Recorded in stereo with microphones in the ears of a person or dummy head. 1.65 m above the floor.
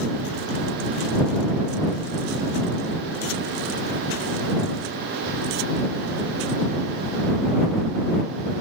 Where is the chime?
No chime in this recording.